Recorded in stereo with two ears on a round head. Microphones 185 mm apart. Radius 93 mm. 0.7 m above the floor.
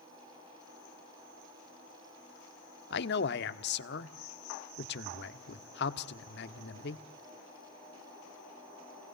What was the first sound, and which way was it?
A man speaking, 55° left (ahead or behind).